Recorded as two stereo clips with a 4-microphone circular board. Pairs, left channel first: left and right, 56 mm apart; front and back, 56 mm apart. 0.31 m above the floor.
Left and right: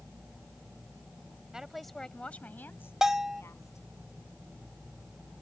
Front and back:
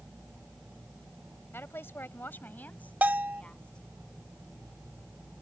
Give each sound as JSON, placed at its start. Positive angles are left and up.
{"t": 1.5, "sound": "a woman speaking", "azimuth_deg": -15}
{"t": 3.0, "sound": "a bell", "azimuth_deg": -160}